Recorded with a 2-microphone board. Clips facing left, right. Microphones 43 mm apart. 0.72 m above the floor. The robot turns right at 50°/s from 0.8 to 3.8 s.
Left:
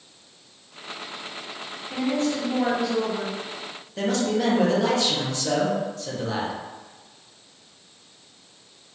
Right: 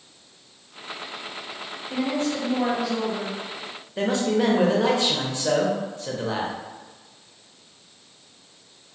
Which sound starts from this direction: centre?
A man speaking, at 4.0 s.